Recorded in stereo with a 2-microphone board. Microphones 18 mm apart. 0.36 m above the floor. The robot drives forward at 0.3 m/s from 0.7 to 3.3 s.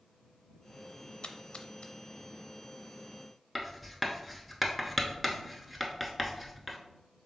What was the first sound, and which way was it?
A splash, 60° left (ahead or behind).